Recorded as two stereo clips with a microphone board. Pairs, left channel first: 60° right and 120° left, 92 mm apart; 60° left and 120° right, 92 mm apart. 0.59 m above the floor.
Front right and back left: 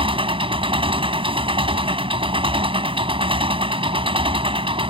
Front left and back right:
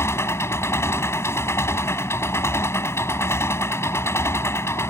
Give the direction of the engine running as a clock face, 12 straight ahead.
8 o'clock.